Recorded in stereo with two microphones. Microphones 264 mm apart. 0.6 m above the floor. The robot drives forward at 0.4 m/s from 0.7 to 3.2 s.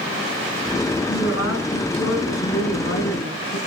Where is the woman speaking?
80° left, 6.5 m.